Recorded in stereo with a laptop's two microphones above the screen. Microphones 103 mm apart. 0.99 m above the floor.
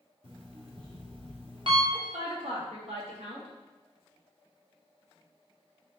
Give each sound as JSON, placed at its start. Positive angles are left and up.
{"t": 0.2, "sound": "an alarm clock", "side_deg": -55, "distance_m": 1.1}
{"t": 1.9, "sound": "a woman speaking", "side_deg": -70, "distance_m": 1.5}